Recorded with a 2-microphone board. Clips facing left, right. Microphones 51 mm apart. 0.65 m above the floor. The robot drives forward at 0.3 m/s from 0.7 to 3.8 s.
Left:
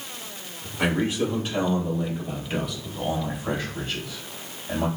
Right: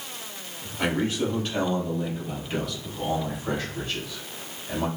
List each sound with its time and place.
0.8 s a man speaking: 15° left (ahead or behind), 3 m; by 4.9 s 10° left (ahead or behind), 3.5 m